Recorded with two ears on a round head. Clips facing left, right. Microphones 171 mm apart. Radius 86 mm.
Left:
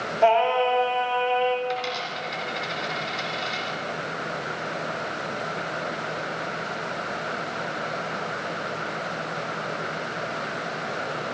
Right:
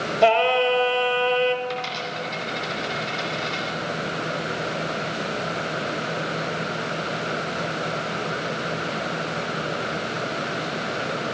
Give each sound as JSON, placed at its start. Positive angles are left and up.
{"t": 0.2, "sound": "singing", "side_deg": -40, "distance_m": 0.9}
{"t": 1.6, "sound": "a dropped coin", "side_deg": 5, "distance_m": 2.0}